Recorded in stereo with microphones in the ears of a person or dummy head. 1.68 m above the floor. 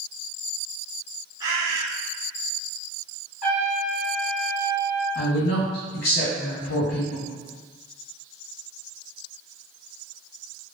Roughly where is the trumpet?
Left.